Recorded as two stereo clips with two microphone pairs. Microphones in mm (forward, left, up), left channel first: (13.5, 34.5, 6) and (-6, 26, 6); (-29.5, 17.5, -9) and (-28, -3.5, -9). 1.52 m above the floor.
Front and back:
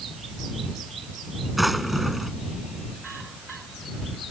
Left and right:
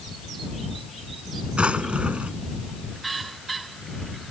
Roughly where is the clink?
I don't hear a clink.